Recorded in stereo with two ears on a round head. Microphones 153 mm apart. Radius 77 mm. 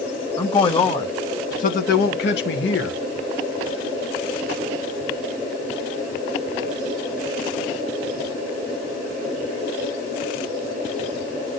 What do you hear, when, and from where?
0.4 s a man speaking: 25° left (ahead or behind), 1.9 m; by 3.0 s 80° left, 1.8 m